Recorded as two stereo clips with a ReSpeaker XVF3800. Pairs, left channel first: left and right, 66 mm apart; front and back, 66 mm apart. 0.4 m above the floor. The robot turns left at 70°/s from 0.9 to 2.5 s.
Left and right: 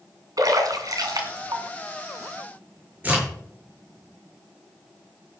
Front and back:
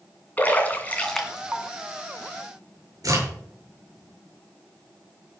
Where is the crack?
155° right, 8 m.